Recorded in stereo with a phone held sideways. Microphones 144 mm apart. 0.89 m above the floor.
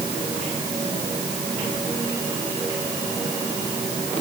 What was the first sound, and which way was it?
Only background noise.